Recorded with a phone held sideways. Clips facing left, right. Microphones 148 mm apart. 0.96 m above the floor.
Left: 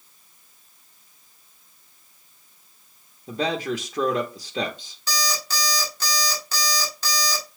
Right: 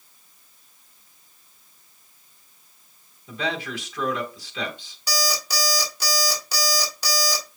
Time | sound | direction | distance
3.3 | a man speaking | 40° left (ahead or behind) | 0.9 m
5.1 | an alarm clock | 10° right (ahead or behind) | 1.6 m